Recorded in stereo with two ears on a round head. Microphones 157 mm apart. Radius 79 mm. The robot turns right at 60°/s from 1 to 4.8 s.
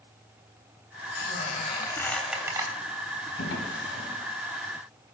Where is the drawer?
75° left (ahead or behind), 4 m; by 4.1 s 60° left (ahead or behind), 4 m.